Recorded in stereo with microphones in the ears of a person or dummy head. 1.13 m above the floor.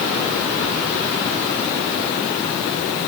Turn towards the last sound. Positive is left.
No sound to turn to.